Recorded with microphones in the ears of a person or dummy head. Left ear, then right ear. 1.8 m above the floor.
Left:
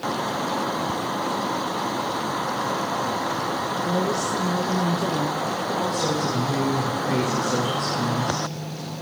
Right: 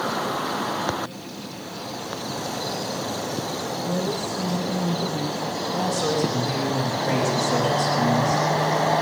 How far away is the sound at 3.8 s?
About 1.4 m.